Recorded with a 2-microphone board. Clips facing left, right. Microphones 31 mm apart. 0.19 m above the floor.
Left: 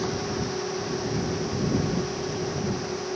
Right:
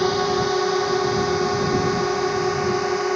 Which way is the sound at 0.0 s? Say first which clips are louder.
Right 9 dB; 75° right (ahead or behind).